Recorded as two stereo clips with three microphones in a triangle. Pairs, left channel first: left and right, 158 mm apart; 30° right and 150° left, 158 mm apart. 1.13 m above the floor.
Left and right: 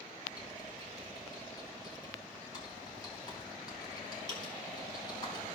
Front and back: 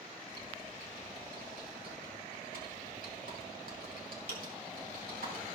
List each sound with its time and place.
0.3 s typing on a keyboard: 150° left, 4 m